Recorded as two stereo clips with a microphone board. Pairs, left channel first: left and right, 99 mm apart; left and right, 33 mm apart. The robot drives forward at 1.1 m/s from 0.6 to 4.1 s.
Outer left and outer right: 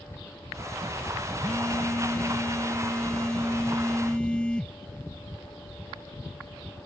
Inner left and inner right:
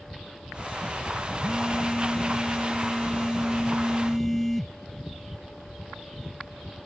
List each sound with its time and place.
1.4 s a phone buzzing: 20° left (ahead or behind); by 4.8 s 10° left (ahead or behind)